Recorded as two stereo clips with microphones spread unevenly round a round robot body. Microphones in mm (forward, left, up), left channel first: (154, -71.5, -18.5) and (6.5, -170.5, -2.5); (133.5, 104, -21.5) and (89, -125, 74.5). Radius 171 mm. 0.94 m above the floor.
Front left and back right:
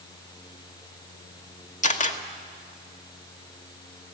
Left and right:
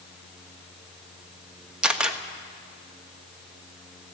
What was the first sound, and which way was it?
A camera shutter, straight ahead.